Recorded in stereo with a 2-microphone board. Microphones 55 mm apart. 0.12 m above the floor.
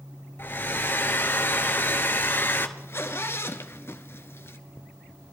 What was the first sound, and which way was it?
A hair dryer, 40° left (ahead or behind).